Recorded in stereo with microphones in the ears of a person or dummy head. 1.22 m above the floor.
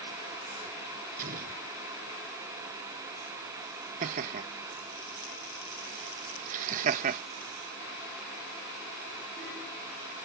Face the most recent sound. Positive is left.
turn(degrees=-45)  # may be behind; listen again after turning